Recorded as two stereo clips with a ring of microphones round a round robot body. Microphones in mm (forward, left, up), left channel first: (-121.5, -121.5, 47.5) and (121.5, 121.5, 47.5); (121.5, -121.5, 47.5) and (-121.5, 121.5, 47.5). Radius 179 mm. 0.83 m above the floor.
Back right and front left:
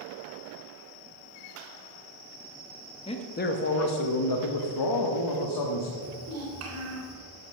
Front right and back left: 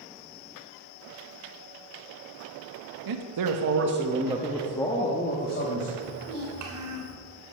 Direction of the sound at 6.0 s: 95° left.